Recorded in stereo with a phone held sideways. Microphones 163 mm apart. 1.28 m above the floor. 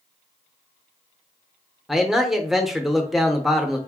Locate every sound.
1.9 s a man speaking: centre (ahead or behind), 0.7 m